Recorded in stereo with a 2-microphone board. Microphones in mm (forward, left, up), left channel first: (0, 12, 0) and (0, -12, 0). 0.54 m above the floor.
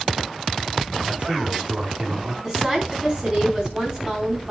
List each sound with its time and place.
1.1 s a man speaking: 45° right (ahead or behind), 5.5 m
2.4 s a woman speaking: 25° right (ahead or behind), 4.5 m